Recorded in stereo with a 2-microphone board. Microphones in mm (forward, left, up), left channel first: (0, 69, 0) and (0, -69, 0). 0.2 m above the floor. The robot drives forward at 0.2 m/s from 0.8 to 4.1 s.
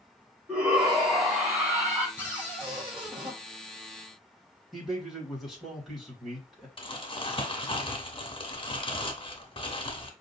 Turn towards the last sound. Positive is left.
turn(degrees=40)  # may be behind; listen again after turning